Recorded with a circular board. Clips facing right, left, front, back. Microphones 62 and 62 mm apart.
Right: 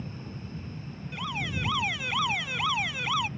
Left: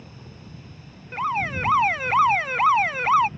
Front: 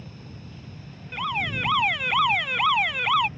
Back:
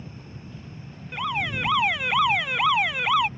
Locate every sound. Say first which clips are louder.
0.0 s an aircraft: right 4 dB, back 1 dB; 120° right
1.1 s an alarm: left 9 dB, even; 95° left